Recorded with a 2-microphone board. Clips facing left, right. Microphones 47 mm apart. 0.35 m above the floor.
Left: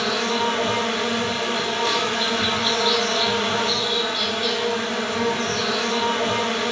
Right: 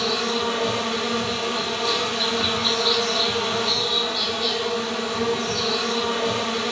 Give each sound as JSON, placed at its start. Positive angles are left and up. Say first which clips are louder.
{"t": 0.0, "sound": "an insect", "louder": "left 2 dB", "side_deg": 55, "distance_m": 1.6}